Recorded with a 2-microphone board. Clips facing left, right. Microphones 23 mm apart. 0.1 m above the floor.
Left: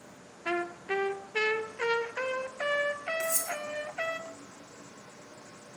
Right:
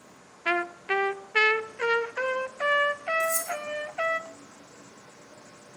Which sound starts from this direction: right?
A trumpet, at 0.5 s.